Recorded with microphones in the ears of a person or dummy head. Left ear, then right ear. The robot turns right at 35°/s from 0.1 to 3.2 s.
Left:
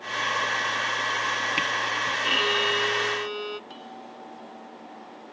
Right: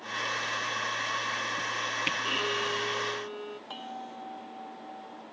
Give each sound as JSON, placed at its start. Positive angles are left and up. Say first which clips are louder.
{"t": 2.2, "sound": "a violin", "louder": "left 7 dB", "azimuth_deg": 20}
{"t": 3.7, "sound": "a bell", "louder": "right 2 dB", "side_deg": -35}